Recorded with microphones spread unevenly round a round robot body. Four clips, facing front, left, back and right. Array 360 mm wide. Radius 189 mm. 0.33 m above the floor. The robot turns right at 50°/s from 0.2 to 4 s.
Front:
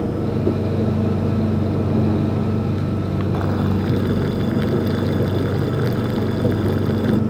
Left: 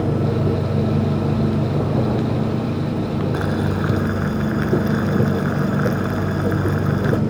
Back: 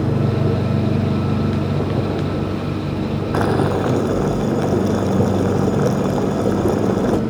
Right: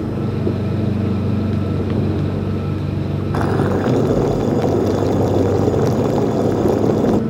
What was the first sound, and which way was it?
Boiling, 130° right.